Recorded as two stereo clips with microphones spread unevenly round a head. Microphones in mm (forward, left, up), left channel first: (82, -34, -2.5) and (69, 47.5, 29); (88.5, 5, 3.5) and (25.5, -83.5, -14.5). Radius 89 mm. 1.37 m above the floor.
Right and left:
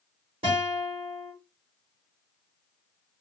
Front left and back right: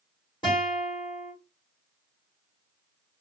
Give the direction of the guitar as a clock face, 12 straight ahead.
8 o'clock.